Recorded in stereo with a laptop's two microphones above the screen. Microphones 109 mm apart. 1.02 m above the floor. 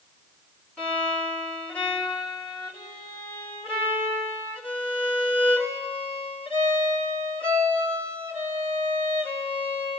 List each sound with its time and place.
0.8 s a violin: 10° left (ahead or behind), 3.5 m